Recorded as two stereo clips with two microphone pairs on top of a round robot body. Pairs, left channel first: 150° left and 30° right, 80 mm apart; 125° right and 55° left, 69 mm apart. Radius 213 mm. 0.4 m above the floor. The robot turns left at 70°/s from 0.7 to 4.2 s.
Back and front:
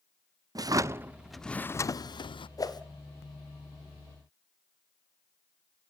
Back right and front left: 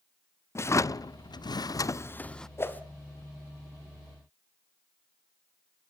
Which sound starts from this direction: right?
A drawer, at 0.6 s.